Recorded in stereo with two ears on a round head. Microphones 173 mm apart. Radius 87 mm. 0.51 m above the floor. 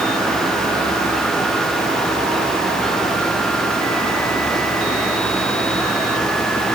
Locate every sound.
Only background noise.